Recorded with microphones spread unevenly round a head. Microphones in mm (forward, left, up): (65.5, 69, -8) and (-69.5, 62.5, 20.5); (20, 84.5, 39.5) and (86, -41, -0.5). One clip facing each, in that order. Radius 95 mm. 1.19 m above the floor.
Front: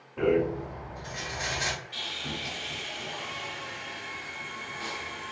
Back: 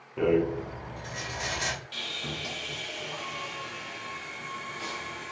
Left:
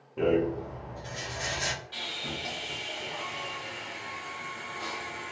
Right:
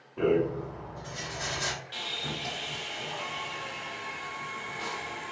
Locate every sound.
0.2 s a rattle: 155° left, 1.0 m
1.9 s sawing: 140° right, 0.7 m